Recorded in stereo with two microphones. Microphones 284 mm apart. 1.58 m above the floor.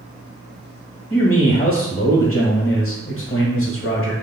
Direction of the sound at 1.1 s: 50° left (ahead or behind).